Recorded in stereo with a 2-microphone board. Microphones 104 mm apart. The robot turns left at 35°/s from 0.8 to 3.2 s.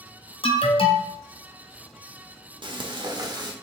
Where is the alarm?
55° left (ahead or behind), 0.6 m.